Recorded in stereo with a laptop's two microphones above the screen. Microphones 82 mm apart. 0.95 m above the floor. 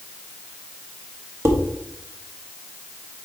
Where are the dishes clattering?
30° right (ahead or behind), 0.9 m.